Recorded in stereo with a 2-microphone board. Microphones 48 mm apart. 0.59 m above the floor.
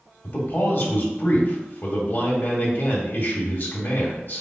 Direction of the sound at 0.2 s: 50° left (ahead or behind).